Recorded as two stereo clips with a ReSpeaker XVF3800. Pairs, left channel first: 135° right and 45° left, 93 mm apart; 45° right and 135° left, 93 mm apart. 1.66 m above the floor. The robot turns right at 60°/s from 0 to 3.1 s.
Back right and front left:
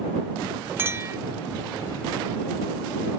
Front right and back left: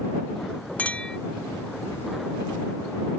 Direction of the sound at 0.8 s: 10° left.